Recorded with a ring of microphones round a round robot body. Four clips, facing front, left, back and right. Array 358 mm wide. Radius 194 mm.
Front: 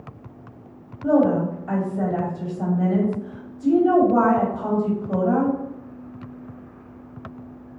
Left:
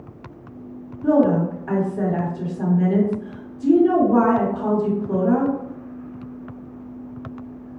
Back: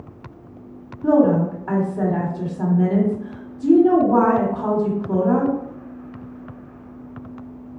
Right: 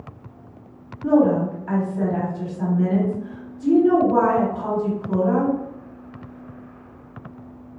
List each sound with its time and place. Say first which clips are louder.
1.0 s a woman speaking: even, back 2 dB; 160° left, 1.8 m